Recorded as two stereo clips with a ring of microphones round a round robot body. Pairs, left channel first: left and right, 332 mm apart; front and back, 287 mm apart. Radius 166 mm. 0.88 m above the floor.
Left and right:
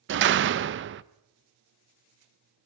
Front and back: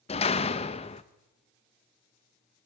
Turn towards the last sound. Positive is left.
turn(degrees=-60)